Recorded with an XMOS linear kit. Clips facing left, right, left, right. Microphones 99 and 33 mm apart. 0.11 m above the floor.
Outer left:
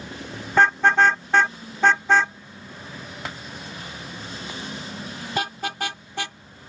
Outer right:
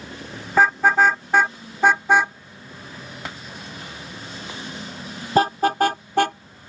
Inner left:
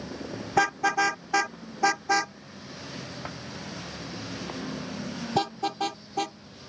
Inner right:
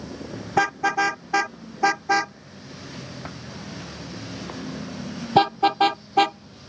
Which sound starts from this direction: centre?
A car horn, at 0.5 s.